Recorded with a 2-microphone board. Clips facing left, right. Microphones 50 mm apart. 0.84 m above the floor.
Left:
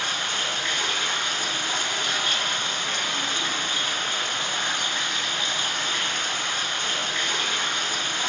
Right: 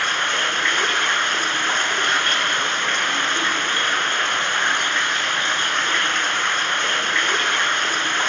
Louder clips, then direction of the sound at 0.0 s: Right 7 dB; 45° right (ahead or behind).